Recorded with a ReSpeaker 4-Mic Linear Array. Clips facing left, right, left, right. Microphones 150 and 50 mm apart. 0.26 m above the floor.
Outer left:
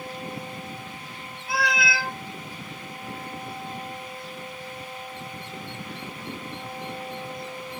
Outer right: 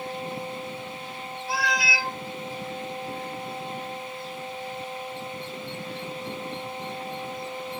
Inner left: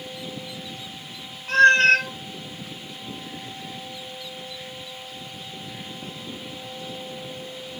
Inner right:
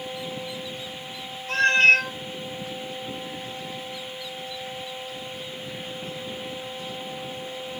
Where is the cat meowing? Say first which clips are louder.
Outer left 2 dB, inner left 3 dB; 55° left (ahead or behind), 1.5 m.